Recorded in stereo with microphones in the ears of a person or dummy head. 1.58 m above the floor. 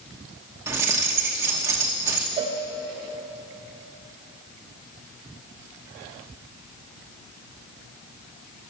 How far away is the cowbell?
About 0.7 m.